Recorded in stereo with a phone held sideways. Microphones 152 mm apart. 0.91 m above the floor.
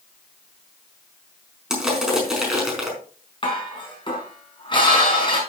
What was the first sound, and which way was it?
Crushing, 5° right (ahead or behind).